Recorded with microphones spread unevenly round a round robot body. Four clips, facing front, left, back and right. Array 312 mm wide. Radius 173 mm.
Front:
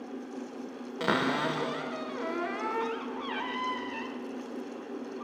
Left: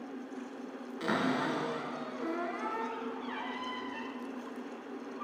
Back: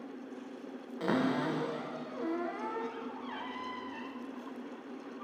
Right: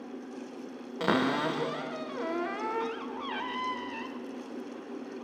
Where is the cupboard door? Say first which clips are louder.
Right 4 dB, front 2 dB; 50° right, 1.3 m.